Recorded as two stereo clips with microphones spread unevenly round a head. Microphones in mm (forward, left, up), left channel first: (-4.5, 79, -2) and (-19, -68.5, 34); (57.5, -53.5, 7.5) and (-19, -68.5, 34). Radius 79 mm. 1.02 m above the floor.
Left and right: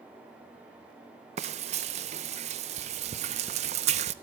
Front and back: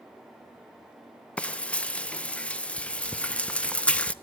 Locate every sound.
1.4 s frying: 45° right, 0.7 m